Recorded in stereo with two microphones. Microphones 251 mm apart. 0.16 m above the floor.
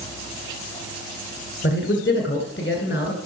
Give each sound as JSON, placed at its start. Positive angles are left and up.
{"t": 1.6, "sound": "a man speaking", "side_deg": 50, "distance_m": 1.8}